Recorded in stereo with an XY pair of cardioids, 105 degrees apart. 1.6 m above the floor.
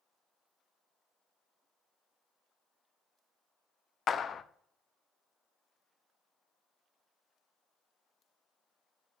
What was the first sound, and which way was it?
A clap, 45° left.